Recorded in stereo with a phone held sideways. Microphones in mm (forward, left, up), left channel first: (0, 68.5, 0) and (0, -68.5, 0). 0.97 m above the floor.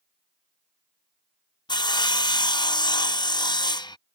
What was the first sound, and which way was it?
Sawing, 30° left (ahead or behind).